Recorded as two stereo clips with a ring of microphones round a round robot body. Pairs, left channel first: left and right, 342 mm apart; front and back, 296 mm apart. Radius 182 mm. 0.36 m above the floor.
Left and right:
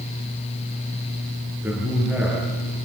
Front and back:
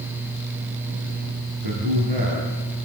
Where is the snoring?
No snoring in this recording.